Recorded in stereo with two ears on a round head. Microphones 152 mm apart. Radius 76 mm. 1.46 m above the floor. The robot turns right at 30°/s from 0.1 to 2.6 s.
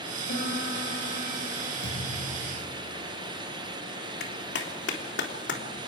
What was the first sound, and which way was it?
A piano, 70° left.